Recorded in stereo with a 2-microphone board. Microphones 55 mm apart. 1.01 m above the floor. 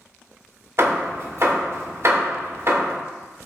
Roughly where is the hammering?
Right.